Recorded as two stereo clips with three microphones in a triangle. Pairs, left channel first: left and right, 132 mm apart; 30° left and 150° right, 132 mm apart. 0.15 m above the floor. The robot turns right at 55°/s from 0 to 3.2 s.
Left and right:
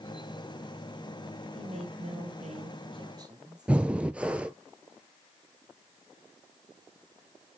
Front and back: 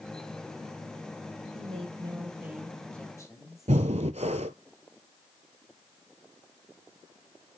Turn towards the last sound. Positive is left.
turn(degrees=-170)